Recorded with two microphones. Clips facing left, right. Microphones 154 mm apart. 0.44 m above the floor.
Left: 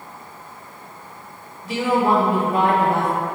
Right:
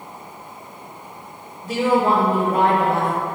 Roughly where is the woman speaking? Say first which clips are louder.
Right 1 dB; right.